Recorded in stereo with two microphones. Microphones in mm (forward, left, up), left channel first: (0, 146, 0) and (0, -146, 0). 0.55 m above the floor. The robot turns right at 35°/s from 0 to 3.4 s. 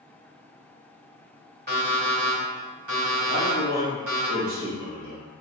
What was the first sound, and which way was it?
An alarm clock, 145° right.